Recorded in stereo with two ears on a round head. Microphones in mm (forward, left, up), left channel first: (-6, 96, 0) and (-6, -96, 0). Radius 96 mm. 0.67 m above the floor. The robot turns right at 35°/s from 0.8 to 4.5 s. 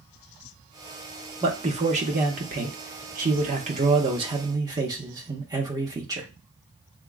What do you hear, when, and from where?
1.4 s a man speaking: 135° right, 0.8 m; by 6.3 s 30° right, 0.8 m